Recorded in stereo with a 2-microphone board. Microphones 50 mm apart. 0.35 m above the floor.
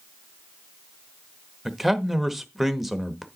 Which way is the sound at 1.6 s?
5° right (ahead or behind).